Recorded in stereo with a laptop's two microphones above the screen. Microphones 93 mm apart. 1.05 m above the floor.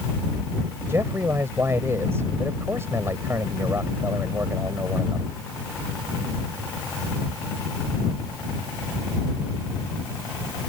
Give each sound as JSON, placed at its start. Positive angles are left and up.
{"t": 0.9, "sound": "a man speaking", "side_deg": -30}